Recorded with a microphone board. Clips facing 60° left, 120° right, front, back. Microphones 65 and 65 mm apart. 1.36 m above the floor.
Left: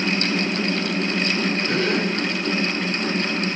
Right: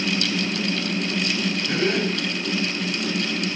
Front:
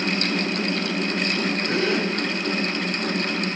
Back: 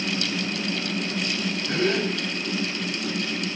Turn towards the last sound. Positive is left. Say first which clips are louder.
# right 1 dB, back 1 dB
turn(degrees=20)